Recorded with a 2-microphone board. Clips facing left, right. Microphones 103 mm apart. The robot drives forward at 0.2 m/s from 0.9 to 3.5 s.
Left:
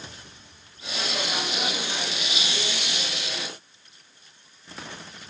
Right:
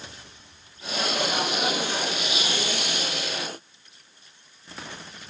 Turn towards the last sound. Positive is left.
No sound to turn to.